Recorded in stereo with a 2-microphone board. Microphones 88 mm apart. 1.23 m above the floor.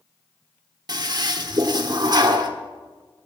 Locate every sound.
0.9 s a toilet flushing: 50° right (ahead or behind), 1.3 m